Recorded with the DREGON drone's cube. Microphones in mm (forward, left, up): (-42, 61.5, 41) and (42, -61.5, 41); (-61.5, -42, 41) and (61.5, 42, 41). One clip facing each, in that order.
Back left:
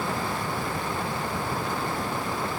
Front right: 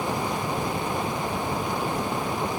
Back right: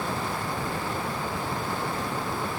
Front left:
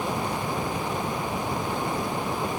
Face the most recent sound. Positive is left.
No sound to turn to.